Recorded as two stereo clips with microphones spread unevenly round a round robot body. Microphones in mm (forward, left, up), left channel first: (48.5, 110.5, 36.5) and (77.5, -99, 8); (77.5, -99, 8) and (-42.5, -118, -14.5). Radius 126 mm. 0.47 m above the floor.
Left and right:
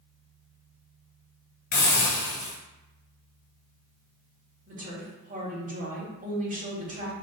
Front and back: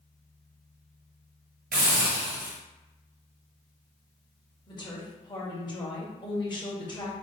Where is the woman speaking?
45° right, 1.9 m.